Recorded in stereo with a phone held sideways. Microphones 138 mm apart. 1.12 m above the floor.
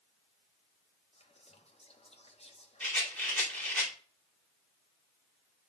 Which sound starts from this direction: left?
Whispering, at 1.1 s.